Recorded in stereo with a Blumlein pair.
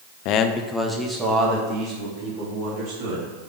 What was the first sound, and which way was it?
A man speaking, 45° left.